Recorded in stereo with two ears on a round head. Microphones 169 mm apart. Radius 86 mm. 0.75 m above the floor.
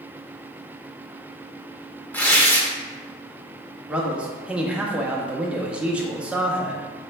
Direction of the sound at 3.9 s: 5° right (ahead or behind).